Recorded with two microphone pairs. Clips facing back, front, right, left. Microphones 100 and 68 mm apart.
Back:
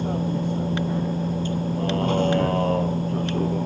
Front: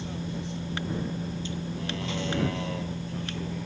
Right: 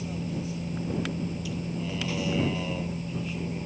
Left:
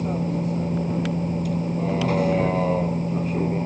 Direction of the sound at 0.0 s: 135° left.